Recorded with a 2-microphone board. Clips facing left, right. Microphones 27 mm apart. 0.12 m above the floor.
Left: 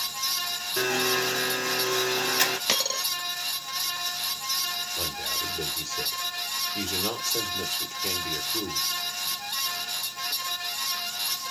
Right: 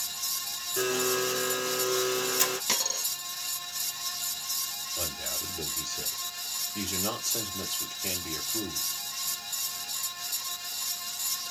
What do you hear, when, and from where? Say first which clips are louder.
0.8 s a blender: left 3 dB; 35° left (ahead or behind), 1.1 m
2.7 s a dropped coin: left 4 dB; 35° left (ahead or behind), 1.4 m
5.0 s a man speaking: left 5 dB; 5° left (ahead or behind), 2.5 m